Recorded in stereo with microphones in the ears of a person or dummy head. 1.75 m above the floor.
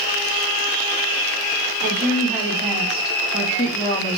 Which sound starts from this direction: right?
A woman speaking, at 1.8 s.